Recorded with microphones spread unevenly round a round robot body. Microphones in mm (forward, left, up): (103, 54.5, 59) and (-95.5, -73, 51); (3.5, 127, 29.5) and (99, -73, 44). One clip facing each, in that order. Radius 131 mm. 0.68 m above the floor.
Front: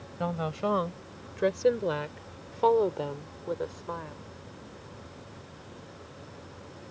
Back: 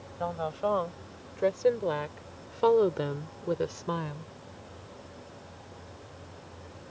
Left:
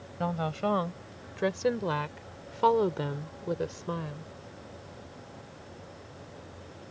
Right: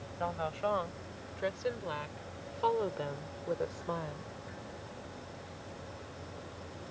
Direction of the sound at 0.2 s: 85° left.